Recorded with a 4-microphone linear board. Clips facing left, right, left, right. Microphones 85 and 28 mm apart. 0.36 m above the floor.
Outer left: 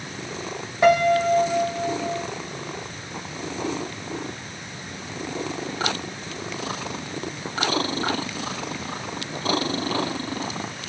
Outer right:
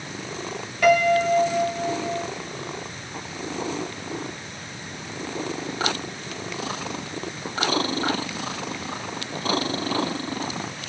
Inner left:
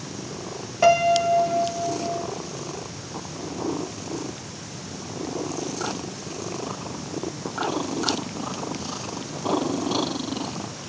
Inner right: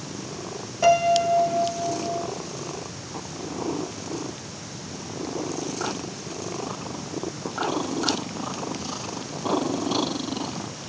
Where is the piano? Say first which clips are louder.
Outer left 1 dB, inner left 1 dB; 30° left (ahead or behind), 1.9 m.